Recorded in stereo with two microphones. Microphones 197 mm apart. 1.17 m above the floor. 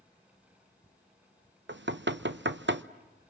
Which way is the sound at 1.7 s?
65° right (ahead or behind).